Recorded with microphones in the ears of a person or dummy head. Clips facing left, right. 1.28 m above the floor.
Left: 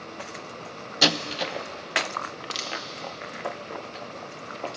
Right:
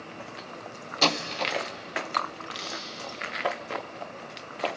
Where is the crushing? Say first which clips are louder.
Left 2 dB; 60° left (ahead or behind), 1.7 m.